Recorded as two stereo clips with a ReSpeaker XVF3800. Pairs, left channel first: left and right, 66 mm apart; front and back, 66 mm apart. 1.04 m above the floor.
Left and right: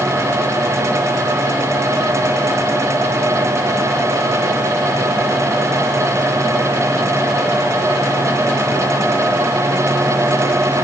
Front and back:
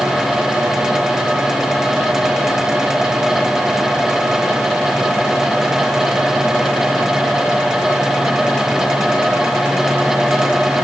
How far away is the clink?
I don't hear a clink.